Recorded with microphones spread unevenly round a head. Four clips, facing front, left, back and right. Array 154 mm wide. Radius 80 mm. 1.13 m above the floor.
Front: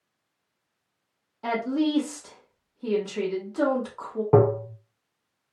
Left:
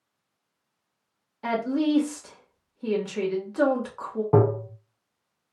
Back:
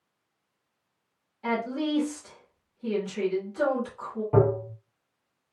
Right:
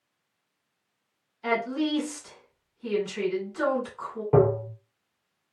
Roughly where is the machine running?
I don't hear a machine running.